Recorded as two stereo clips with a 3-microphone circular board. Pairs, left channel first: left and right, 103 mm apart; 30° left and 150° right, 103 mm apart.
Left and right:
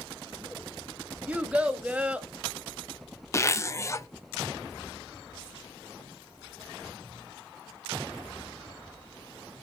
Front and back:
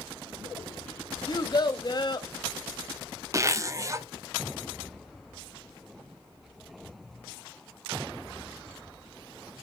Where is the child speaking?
15° right, 1.0 m.